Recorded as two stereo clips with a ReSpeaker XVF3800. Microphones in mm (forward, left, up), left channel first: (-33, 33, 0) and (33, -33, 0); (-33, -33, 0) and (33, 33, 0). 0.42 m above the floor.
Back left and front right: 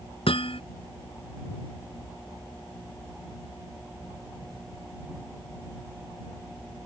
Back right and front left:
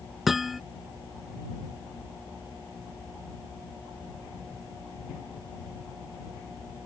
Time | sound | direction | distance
0.3 | hammering | 135° left | ?